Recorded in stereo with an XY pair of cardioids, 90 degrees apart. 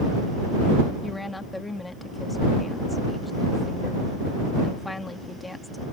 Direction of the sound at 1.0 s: 15° left.